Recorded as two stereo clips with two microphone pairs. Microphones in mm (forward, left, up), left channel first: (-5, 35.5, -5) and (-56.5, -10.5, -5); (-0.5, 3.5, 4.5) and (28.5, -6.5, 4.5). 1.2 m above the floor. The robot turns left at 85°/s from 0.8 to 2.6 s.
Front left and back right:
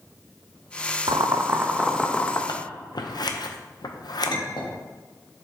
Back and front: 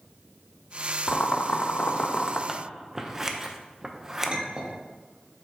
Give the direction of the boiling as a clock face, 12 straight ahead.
5 o'clock.